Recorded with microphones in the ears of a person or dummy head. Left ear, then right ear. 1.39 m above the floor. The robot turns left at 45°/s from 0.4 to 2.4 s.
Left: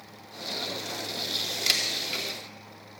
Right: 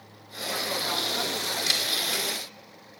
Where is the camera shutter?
25° left (ahead or behind), 3 m; by 2.2 s centre (ahead or behind), 3 m.